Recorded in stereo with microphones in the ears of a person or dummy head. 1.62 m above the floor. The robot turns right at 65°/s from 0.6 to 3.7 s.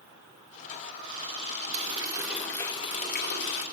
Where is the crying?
I don't hear crying.